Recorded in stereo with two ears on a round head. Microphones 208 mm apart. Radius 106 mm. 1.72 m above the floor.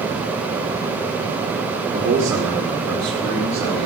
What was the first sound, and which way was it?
A man speaking, 20° right (ahead or behind).